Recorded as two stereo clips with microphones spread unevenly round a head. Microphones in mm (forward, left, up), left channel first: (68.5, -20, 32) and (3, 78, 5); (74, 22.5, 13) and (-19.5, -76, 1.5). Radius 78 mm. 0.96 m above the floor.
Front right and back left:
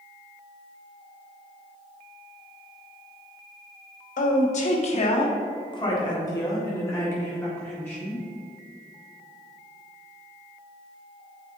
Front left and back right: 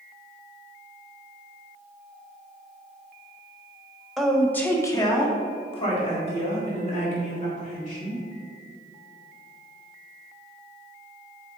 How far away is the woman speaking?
About 1.3 m.